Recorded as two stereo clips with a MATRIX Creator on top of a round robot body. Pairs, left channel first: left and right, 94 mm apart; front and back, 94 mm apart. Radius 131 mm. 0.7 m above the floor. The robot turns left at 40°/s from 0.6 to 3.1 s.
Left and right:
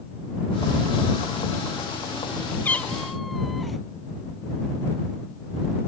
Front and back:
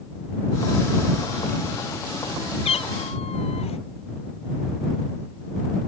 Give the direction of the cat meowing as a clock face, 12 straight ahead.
11 o'clock.